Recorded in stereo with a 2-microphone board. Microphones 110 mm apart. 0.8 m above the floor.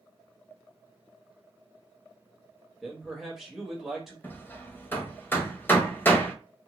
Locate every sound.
2.8 s a man speaking: 5° right (ahead or behind), 1.2 m
4.2 s hammering: 20° left (ahead or behind), 0.8 m